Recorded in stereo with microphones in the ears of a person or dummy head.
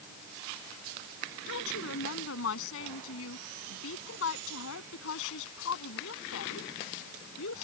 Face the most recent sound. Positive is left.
turn(degrees=80)